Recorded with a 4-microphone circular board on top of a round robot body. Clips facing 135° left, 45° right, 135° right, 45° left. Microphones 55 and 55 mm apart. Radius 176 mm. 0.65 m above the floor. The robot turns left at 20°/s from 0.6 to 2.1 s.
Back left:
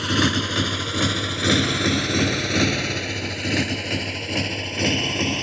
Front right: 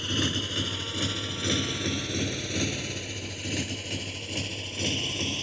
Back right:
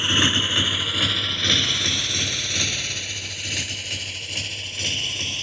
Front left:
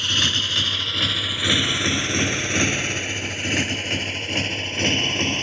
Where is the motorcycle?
155° left; by 5.4 s 100° left.